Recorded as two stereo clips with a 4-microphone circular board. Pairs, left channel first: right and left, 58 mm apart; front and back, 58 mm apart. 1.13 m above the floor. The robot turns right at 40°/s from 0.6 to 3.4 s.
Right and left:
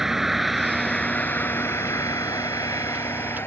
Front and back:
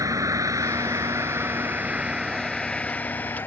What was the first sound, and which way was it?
A vehicle, 175° left.